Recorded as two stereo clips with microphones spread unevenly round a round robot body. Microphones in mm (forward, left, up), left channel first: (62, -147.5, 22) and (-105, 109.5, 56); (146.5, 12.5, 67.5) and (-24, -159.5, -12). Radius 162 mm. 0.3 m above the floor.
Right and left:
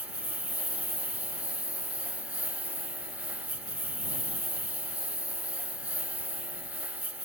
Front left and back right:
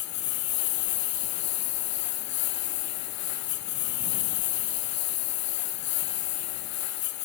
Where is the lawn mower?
35° left.